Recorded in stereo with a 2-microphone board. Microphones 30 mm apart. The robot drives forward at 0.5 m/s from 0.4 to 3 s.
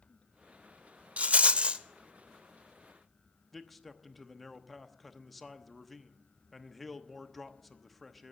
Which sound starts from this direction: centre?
A man speaking, at 3.5 s.